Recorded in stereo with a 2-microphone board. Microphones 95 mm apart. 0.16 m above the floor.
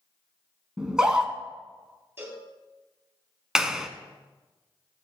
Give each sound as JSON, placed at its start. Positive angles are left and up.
{"t": 0.8, "sound": "a scream", "side_deg": -5, "distance_m": 1.6}
{"t": 2.2, "sound": "a cowbell", "side_deg": -25, "distance_m": 3.5}
{"t": 3.5, "sound": "a clap", "side_deg": -5, "distance_m": 0.9}